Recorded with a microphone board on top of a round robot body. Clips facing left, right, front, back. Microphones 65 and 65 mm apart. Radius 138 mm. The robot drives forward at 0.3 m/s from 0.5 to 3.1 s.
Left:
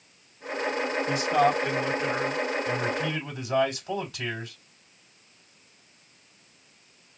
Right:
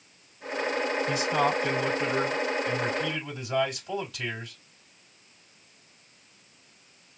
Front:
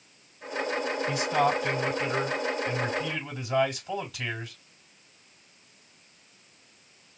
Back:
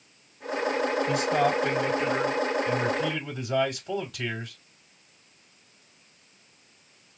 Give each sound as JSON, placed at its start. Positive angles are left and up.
{"t": 1.1, "sound": "a man speaking", "azimuth_deg": 145, "distance_m": 3.5}